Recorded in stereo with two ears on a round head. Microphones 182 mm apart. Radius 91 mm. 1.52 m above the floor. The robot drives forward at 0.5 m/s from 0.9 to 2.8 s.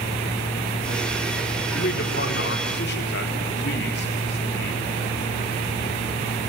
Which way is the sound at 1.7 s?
50° left (ahead or behind).